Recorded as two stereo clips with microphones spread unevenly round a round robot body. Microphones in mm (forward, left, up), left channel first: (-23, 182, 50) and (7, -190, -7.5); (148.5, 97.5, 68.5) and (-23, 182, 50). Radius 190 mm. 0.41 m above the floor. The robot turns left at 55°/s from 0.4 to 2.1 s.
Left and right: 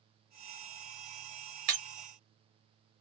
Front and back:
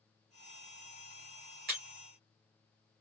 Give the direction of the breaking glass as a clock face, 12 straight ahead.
5 o'clock.